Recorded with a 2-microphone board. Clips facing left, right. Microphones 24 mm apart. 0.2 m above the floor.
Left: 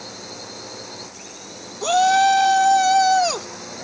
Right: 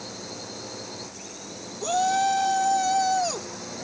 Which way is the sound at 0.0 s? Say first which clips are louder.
Left 2 dB; 15° left (ahead or behind).